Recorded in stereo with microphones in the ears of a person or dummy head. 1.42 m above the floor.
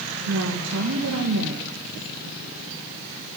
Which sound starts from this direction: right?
A woman speaking, at 0.3 s.